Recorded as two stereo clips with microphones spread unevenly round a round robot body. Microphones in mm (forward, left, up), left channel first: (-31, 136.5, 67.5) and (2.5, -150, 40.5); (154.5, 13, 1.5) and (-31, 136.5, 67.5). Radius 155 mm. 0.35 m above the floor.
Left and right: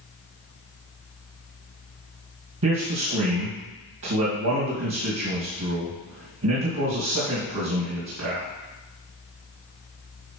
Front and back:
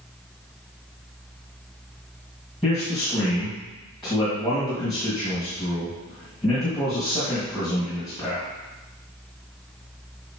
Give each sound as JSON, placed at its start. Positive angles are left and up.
{"t": 2.6, "sound": "a man speaking", "azimuth_deg": -115, "distance_m": 2.0}